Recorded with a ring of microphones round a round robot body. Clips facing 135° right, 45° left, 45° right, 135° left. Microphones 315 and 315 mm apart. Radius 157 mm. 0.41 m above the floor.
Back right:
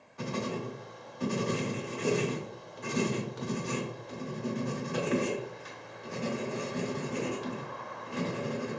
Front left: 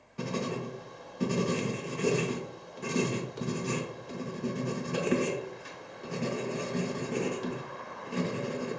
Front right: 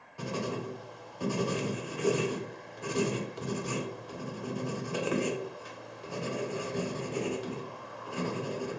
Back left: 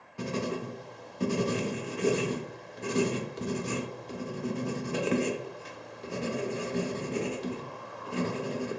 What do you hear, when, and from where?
0.2 s writing: 85° left, 0.5 m